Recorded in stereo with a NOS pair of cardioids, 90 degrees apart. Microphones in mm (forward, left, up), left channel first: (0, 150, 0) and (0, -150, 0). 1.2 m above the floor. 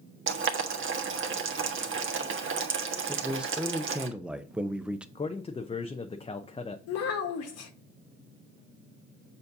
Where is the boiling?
45° right, 1.4 m.